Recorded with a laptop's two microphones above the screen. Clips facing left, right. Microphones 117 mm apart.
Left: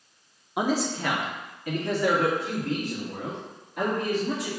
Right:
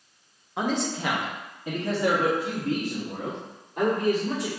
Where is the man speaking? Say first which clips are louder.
Left 1 dB; 15° left (ahead or behind), 0.6 m; by 4.5 s 40° right (ahead or behind), 3 m.